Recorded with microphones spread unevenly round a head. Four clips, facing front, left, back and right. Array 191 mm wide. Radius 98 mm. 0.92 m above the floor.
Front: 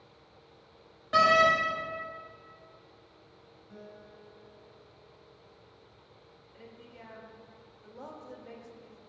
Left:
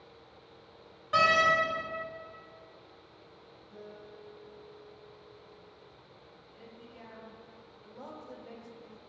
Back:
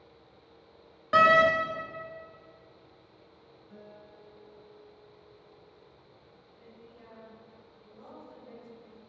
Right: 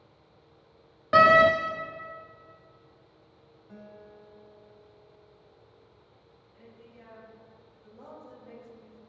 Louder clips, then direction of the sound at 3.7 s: Even, front 1 dB; 90° right.